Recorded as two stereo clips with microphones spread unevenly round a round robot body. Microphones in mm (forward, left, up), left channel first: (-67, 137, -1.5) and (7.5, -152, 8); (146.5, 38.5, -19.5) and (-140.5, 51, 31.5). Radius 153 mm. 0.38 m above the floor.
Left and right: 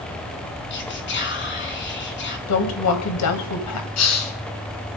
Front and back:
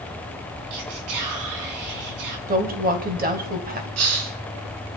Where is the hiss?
140° left, 3 m.